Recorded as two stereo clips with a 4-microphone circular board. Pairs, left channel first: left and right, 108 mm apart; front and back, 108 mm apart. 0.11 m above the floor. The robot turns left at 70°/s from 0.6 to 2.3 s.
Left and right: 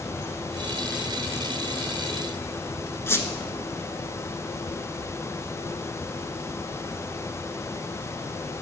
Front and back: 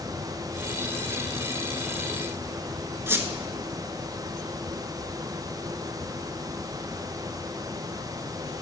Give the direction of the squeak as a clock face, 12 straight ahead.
8 o'clock.